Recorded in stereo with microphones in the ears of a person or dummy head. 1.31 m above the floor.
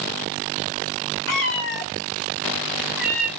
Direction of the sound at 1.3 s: 45° left (ahead or behind).